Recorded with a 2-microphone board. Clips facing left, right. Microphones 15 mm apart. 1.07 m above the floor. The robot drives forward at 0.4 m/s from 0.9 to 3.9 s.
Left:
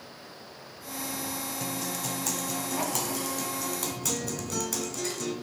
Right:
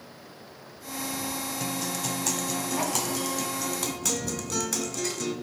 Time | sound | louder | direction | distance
1.6 | a guitar | right 3 dB | 25° right (ahead or behind) | 1.0 m